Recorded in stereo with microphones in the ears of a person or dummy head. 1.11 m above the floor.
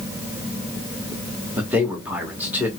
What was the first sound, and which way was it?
A man speaking, 10° right (ahead or behind).